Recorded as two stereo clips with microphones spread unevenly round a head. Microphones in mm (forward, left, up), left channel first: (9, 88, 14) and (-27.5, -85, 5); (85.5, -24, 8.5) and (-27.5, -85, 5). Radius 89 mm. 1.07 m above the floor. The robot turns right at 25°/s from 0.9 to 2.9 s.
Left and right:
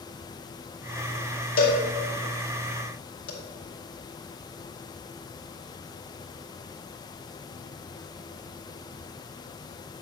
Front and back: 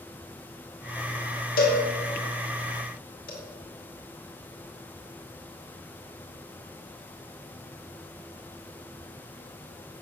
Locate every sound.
1.6 s a cowbell: 35° left, 2 m; by 3.3 s 65° left, 2 m